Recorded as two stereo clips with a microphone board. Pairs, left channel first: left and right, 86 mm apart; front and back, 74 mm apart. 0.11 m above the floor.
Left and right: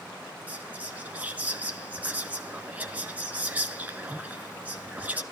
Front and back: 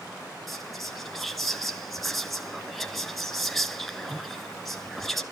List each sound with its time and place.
0.5 s whispering: 85° right, 1.4 m